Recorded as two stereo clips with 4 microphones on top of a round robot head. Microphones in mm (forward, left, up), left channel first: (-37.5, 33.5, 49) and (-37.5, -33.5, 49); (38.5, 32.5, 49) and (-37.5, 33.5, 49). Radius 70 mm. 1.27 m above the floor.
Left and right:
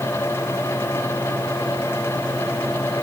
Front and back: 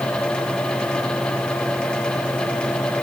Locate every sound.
Only background noise.